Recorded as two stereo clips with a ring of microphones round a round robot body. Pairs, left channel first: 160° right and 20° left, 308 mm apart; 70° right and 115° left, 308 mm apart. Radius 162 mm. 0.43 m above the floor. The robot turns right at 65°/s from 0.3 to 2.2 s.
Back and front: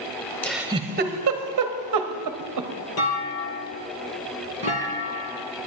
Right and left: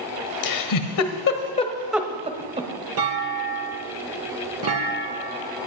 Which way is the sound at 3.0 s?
160° left.